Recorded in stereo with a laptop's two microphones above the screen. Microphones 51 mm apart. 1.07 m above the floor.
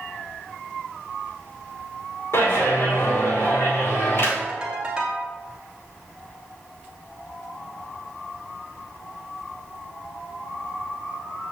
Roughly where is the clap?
Left.